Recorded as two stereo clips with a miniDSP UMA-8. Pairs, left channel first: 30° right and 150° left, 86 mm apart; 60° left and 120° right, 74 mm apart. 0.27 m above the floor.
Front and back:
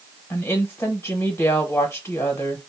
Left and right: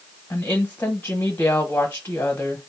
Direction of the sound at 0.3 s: 10° left.